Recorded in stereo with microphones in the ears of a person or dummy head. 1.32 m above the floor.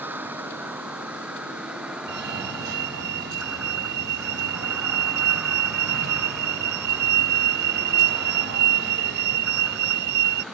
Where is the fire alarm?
60° right (ahead or behind).